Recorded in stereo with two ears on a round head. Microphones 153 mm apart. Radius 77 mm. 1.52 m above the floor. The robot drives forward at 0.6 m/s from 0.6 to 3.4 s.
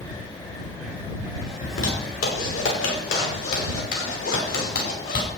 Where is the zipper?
75° left (ahead or behind), 6 m; by 5.3 s 85° left, 5.5 m.